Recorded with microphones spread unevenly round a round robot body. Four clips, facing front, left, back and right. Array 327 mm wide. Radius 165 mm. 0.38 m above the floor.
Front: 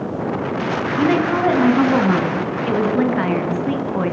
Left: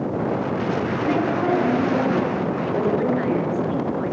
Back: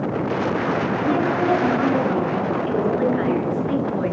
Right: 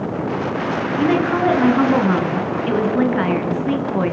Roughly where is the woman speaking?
Ahead right.